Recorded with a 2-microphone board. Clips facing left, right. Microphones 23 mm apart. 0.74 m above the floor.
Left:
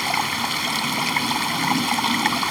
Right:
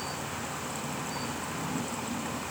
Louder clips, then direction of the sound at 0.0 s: Left 13 dB; 85° left.